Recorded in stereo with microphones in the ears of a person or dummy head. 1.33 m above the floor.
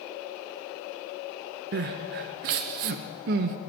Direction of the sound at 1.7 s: 45° right (ahead or behind).